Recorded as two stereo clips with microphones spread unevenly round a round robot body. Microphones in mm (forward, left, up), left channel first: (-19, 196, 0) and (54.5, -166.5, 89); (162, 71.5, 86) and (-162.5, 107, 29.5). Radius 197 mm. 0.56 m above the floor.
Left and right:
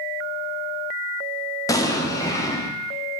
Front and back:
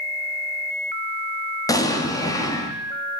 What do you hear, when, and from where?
1.7 s an explosion: 85° left, 1.0 m